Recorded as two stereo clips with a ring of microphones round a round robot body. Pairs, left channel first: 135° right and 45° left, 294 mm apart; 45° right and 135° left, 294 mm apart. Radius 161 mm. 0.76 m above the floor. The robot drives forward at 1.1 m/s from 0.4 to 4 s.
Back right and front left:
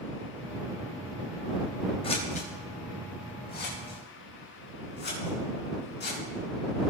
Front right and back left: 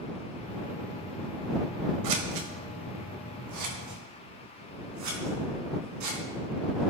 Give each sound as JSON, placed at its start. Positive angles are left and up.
{"t": 2.0, "sound": "scissors", "azimuth_deg": 150, "distance_m": 1.7}